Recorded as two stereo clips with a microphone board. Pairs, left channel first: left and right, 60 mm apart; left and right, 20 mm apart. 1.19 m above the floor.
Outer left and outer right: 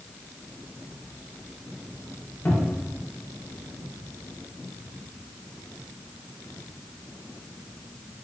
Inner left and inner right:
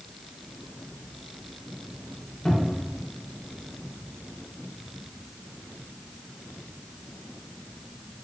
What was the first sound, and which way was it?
A cupboard door, 45° left (ahead or behind).